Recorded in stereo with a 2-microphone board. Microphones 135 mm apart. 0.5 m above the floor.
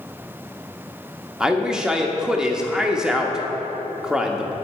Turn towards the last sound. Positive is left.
turn(degrees=-5)  # may be behind; listen again after turning